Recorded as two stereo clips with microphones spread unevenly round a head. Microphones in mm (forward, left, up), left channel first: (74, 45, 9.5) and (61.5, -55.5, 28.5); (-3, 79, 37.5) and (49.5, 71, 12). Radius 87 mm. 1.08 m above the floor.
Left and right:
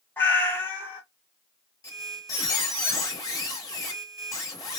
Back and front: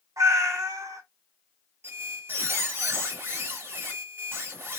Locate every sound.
0.2 s a cat meowing: 10° left, 1.2 m
1.8 s a squeak: 45° left, 1.0 m